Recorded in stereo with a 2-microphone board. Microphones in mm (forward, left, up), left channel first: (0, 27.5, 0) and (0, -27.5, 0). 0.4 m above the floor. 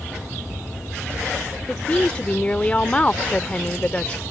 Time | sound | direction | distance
1.7 | a woman speaking | 25° left (ahead or behind) | ?